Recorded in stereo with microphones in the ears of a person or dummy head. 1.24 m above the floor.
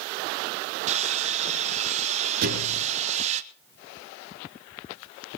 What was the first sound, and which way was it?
Sawing, 30° right (ahead or behind).